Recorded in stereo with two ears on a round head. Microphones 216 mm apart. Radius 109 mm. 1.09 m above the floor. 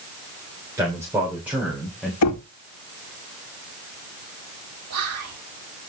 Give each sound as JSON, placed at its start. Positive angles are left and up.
{"t": 0.8, "sound": "a man speaking", "side_deg": -15, "distance_m": 3.5}
{"t": 2.2, "sound": "knocking", "side_deg": 70, "distance_m": 1.7}
{"t": 4.9, "sound": "whispering", "side_deg": -65, "distance_m": 4.0}